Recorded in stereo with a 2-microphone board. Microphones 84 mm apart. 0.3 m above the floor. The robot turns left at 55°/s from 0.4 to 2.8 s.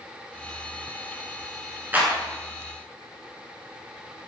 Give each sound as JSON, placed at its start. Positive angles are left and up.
{"t": 1.9, "sound": "a clap", "side_deg": -25, "distance_m": 3.0}